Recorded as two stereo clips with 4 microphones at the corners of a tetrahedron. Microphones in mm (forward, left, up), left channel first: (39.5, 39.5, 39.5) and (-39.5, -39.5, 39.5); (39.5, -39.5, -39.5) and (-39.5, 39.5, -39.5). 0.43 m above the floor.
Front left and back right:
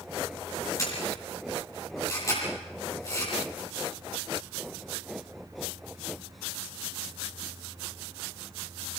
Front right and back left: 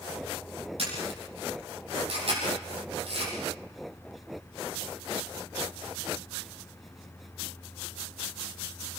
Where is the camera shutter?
105° left, 10 m.